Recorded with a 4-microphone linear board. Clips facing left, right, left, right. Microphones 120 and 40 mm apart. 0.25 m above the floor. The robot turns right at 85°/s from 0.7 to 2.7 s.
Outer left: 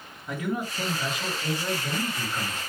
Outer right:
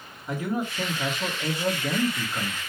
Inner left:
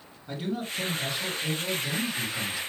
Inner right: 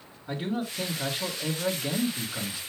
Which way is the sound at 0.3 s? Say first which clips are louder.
Outer right 2 dB, inner right 1 dB; 170° right.